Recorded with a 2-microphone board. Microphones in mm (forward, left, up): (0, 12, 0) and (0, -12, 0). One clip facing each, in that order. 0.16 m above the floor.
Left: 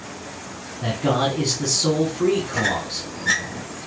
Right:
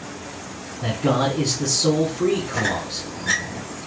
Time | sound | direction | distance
0.8 | a man speaking | 15° left (ahead or behind) | 1.1 m
2.5 | a squeak | 20° left (ahead or behind) | 1.5 m